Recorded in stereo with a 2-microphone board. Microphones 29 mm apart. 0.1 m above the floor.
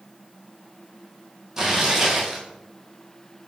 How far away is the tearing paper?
About 0.9 m.